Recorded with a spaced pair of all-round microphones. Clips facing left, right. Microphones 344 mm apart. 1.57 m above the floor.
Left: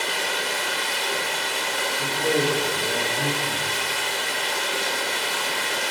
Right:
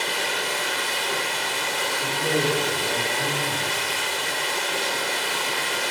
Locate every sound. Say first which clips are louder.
0.0 s running water: even; 20° right (ahead or behind), 3 m
2.0 s a man speaking: left 2 dB; 65° left (ahead or behind), 2 m